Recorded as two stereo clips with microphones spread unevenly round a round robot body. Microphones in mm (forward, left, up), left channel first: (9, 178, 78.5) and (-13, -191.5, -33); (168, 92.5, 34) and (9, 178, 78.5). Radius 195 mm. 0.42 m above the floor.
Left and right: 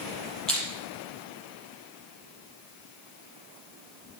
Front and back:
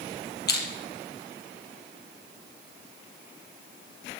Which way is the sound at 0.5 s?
Straight ahead.